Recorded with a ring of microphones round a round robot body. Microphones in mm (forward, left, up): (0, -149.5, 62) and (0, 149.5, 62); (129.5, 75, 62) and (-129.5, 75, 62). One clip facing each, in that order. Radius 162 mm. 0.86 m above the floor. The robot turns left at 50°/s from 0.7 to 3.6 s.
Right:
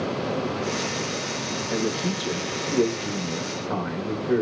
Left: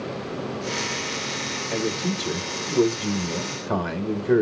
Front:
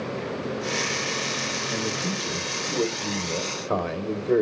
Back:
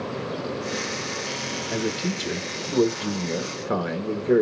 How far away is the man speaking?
About 1.7 m.